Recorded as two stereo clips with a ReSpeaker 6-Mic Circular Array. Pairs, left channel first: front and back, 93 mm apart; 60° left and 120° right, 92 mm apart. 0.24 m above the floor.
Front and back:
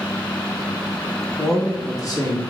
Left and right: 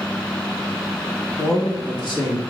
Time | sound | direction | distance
1.4 | a man speaking | 35° left | 1.0 m